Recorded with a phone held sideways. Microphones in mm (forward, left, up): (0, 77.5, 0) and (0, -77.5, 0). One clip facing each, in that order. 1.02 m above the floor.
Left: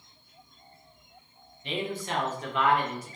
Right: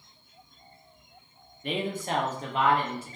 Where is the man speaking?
50° right (ahead or behind), 0.7 m; by 3.2 s 25° right (ahead or behind), 1.1 m.